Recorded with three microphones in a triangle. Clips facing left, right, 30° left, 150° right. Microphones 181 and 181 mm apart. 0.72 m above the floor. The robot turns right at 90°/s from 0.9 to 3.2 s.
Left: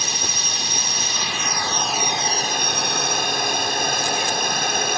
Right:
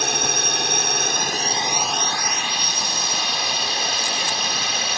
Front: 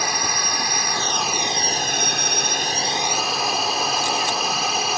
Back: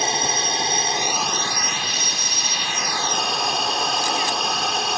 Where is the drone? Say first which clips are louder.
Right 6 dB, back 2 dB; 90° right; by 5.0 s 115° left.